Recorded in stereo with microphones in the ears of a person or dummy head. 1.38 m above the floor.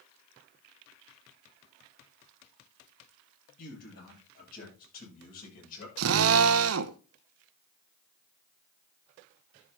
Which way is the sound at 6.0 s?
80° right.